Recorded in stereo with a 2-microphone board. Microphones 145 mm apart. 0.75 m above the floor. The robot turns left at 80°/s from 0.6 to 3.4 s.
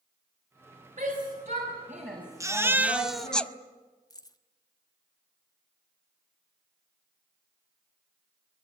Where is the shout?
45° right (ahead or behind), 5 m; by 3.4 s 60° left (ahead or behind), 5 m.